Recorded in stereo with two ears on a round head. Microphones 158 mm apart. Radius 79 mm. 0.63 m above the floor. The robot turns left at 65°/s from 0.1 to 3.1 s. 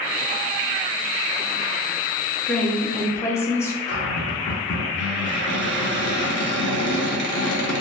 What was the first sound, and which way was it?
A woman speaking, 5° left (ahead or behind).